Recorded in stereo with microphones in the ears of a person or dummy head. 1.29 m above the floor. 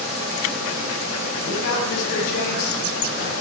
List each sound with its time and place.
1.4 s a man speaking: 60° left (ahead or behind), 9 m